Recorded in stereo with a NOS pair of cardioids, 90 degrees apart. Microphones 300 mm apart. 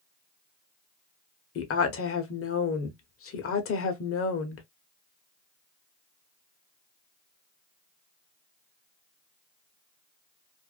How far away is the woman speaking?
About 1.1 m.